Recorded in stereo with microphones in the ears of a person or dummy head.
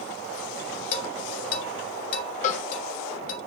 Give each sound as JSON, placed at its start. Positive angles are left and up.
{"t": 0.9, "sound": "dishes clattering", "side_deg": 45, "distance_m": 2.5}
{"t": 2.4, "sound": "a cowbell", "side_deg": 45, "distance_m": 1.3}